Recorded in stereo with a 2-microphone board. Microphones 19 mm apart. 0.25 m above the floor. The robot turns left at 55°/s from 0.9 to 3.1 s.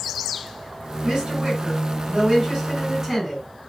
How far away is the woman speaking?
About 2.5 m.